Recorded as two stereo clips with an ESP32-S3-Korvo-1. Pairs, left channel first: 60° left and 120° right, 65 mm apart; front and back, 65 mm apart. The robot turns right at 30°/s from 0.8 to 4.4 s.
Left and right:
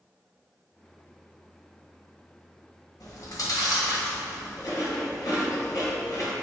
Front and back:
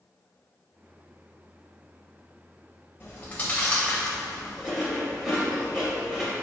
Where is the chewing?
55° left, 2 m; by 6.3 s 95° left, 2 m.